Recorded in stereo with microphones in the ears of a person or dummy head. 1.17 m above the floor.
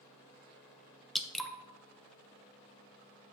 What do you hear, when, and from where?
1.1 s dripping: 5° left (ahead or behind), 0.6 m